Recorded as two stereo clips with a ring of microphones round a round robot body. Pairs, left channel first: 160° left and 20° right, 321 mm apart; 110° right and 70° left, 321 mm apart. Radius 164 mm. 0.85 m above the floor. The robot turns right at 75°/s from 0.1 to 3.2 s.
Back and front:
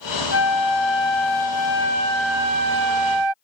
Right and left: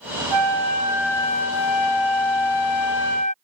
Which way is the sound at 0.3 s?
100° left.